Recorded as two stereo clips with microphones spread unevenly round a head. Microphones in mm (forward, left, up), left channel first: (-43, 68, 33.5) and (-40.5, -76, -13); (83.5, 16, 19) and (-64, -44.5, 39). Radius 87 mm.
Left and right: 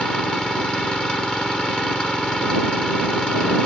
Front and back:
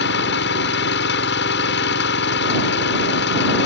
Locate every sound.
0.0 s an engine running: 5° left